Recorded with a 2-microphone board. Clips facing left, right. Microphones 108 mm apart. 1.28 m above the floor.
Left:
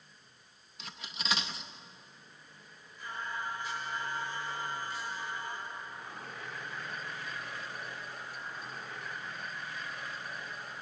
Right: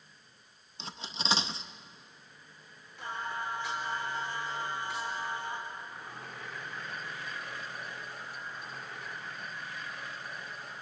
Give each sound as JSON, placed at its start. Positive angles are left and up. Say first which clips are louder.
{"t": 0.8, "sound": "cutlery clinking", "louder": "right 4 dB", "side_deg": -30, "distance_m": 0.7}
{"t": 3.0, "sound": "singing", "louder": "right 2 dB", "side_deg": -85, "distance_m": 5.0}